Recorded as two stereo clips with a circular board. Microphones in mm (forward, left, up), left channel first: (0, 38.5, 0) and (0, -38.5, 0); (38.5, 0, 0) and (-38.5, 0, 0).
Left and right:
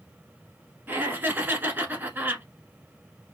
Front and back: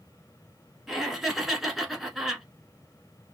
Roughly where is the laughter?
Right.